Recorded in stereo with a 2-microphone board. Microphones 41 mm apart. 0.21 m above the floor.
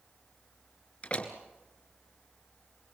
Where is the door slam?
30° left (ahead or behind), 2 m.